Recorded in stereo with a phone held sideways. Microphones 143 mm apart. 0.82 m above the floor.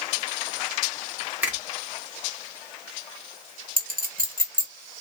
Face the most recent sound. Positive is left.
turn(degrees=-75)  # may be behind; listen again after turning